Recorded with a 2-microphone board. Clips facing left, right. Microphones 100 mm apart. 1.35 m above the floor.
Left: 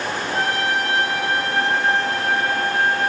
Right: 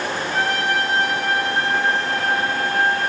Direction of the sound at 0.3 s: 40° left (ahead or behind).